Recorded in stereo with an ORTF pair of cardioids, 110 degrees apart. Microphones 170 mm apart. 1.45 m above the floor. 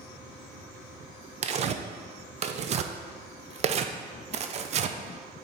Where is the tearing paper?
40° right, 0.5 m.